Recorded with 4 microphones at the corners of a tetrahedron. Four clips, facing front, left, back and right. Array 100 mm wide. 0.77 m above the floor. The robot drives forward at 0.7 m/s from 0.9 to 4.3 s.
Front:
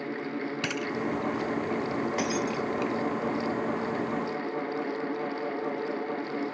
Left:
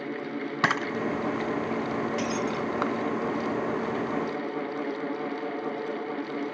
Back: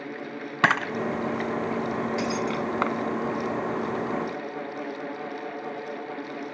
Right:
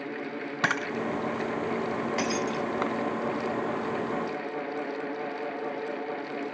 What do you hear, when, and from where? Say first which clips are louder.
0.6 s a camera shutter: left 2 dB, back 11 dB; 170° left; by 3.0 s 175° left
2.2 s breaking glass: even, back 2 dB; 55° right; by 2.7 s 60° right